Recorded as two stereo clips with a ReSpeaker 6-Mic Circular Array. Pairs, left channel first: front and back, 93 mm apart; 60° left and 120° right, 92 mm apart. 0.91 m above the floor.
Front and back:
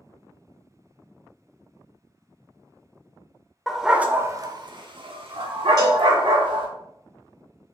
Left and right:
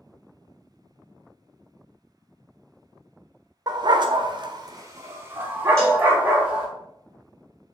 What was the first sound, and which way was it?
A dog barking, 85° right.